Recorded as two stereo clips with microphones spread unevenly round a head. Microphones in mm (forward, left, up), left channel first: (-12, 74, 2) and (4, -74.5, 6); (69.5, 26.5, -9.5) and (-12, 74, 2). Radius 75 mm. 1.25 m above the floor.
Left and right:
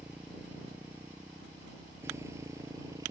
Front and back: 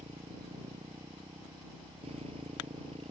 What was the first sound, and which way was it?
A motorcycle, 165° right.